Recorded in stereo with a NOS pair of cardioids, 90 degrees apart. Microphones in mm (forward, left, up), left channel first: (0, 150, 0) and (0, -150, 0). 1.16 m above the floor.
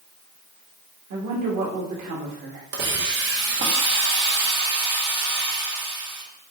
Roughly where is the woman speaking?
Ahead right.